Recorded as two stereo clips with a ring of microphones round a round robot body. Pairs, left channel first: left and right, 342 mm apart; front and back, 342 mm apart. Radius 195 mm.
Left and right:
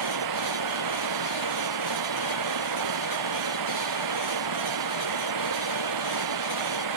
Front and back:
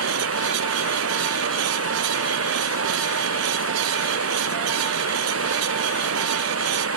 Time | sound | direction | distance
0.0 | running water | 130° right | ?